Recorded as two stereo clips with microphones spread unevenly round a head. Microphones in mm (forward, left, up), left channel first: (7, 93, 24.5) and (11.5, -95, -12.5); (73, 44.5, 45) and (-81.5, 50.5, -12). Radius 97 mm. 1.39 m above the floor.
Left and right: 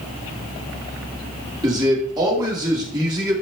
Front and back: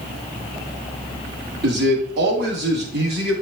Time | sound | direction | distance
1.6 | a man speaking | 160° right | 3 m